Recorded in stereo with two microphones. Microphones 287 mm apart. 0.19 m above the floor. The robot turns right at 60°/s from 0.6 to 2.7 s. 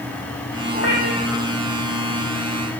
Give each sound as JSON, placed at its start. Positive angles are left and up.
{"t": 0.7, "sound": "a cat meowing", "azimuth_deg": 35, "distance_m": 5.5}